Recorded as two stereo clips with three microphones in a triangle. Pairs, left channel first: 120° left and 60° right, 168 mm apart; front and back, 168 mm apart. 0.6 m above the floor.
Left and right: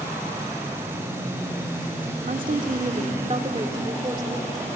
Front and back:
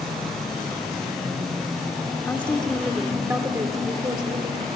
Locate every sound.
2.2 s a woman speaking: 75° right, 1.6 m; by 4.7 s 130° right, 2 m